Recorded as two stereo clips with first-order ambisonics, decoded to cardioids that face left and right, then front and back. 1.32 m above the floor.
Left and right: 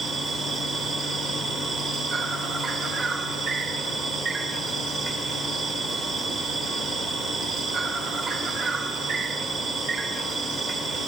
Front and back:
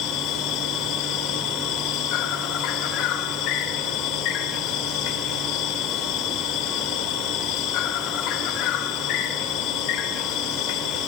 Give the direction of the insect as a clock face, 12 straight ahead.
1 o'clock.